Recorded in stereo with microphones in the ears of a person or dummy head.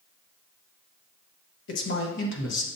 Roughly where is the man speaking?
Left.